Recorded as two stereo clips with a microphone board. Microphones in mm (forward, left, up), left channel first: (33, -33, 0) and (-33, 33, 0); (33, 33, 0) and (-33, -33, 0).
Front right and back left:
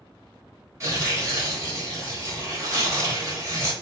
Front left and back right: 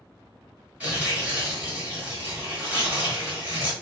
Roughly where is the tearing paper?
Behind.